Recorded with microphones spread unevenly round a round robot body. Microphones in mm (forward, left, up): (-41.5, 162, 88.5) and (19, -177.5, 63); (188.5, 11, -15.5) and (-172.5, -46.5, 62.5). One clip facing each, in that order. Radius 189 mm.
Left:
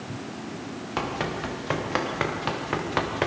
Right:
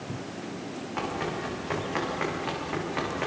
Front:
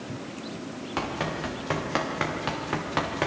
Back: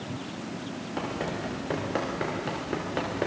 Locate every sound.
1.0 s running footsteps: 70° left, 5.5 m; by 3.3 s 75° left, 4 m